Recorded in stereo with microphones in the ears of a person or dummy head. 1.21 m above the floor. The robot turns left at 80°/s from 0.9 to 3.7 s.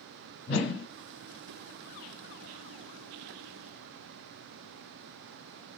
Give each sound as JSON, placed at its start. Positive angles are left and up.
{"t": 0.5, "sound": "a whoosh", "side_deg": 55, "distance_m": 1.1}